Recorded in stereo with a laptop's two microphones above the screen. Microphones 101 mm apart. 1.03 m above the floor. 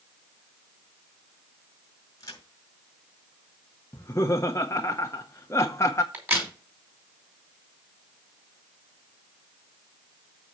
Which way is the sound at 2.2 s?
35° left (ahead or behind).